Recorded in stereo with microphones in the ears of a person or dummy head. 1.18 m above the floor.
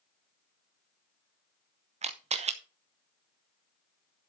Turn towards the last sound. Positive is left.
turn(degrees=-30)  # may be behind; listen again after turning